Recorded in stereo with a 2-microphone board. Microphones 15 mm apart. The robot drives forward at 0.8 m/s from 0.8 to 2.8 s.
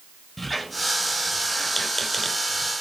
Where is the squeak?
15° left (ahead or behind), 1.5 m; by 2.7 s 10° left (ahead or behind), 1.7 m.